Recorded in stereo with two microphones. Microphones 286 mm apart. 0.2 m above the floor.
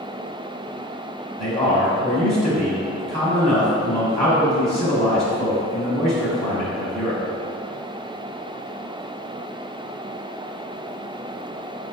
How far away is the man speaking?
About 1.1 m.